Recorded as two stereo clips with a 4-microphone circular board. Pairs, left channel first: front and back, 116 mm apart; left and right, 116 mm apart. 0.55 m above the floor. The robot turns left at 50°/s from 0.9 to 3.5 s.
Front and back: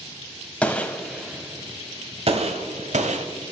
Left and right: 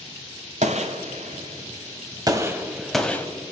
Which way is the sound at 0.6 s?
80° right.